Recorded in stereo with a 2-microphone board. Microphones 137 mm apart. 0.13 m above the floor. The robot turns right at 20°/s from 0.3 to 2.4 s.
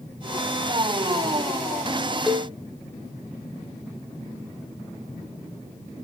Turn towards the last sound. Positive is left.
turn(degrees=-5)  # may be behind; listen again after turning